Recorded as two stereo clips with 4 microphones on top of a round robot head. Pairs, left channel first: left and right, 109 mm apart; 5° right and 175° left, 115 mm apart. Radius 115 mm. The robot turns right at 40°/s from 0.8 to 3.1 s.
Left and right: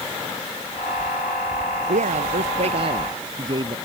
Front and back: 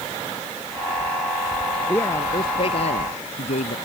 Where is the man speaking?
85° right; by 3.8 s 35° right.